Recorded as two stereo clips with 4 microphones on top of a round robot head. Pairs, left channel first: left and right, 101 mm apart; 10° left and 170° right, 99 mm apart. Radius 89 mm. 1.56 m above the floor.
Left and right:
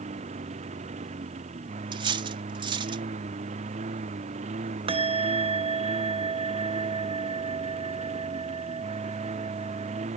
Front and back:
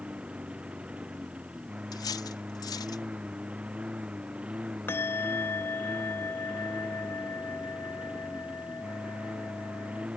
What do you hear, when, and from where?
0.0 s a lawn mower: 90° right
1.9 s cutlery clinking: 50° right
4.9 s a bell: 60° right